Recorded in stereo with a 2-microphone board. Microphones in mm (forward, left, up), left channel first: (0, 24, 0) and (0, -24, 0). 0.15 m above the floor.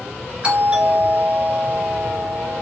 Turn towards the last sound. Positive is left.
turn(degrees=-20)  # may be behind; listen again after turning